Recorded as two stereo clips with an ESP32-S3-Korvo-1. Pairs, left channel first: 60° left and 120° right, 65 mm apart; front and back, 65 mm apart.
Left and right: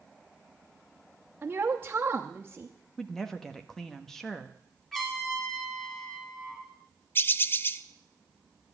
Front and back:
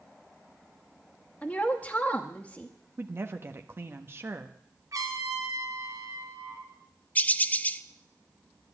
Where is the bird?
45° left, 0.5 m.